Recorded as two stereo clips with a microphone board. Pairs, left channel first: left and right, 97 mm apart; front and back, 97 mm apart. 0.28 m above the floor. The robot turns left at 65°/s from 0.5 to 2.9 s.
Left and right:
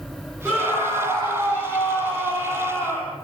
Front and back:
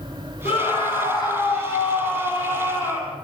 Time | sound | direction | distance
0.5 | a scream | 5° right | 9 m